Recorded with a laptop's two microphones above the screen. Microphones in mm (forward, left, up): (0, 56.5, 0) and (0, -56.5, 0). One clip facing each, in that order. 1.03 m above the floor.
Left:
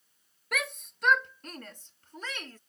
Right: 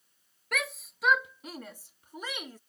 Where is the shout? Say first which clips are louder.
Even; centre (ahead or behind); by 2.6 s 10° right (ahead or behind).